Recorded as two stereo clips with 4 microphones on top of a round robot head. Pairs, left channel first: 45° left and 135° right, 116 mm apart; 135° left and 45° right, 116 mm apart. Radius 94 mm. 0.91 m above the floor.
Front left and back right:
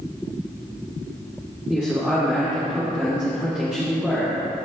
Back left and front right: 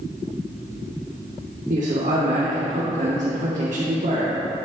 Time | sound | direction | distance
1.7 | a man speaking | 50° right | 3 m